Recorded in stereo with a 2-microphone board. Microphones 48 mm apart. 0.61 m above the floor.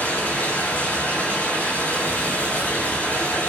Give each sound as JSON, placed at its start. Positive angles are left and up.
{"t": 0.0, "sound": "running water", "side_deg": 35, "distance_m": 3.0}